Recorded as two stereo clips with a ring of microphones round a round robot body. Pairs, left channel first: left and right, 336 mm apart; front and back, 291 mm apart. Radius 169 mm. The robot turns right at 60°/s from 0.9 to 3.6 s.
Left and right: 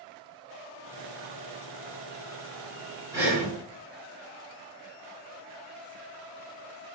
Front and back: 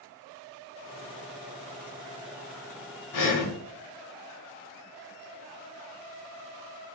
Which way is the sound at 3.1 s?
10° right.